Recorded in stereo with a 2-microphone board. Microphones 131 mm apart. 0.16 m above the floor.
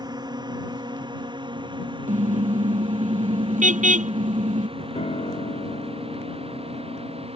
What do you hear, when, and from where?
0.0 s a drone: 30° right (ahead or behind); by 7.4 s 50° right (ahead or behind)
2.1 s a car horn: 75° right (ahead or behind)
5.0 s a piano: 55° left (ahead or behind)